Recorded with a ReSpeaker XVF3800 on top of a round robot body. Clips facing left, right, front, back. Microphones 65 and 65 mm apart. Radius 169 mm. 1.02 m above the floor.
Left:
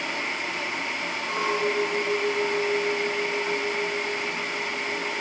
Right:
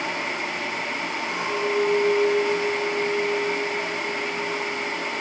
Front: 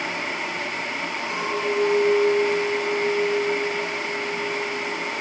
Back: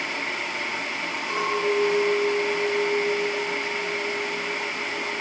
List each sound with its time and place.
1.3 s a clink: 130° left, 4 m